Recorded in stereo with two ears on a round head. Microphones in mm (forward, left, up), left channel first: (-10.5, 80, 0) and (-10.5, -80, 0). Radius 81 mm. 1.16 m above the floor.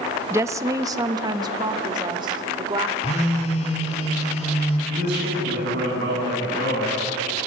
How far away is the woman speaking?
About 0.8 m.